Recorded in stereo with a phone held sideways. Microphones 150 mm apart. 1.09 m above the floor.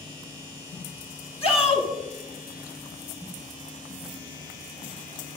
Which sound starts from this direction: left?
A shout, at 1.4 s.